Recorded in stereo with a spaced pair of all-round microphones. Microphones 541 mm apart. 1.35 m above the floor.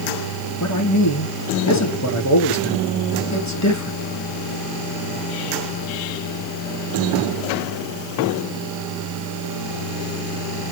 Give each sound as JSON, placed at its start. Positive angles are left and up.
{"t": 0.6, "sound": "a man speaking", "side_deg": 30, "distance_m": 2.0}